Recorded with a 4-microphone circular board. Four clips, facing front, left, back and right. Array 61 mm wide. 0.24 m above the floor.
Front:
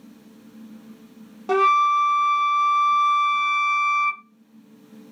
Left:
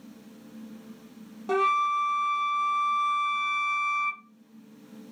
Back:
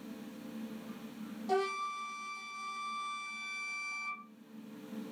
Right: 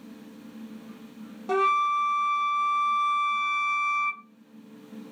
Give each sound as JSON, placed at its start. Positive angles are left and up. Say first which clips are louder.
{"t": 1.5, "sound": "a flute", "louder": "right 1 dB, front 17 dB", "azimuth_deg": 5, "distance_m": 0.6}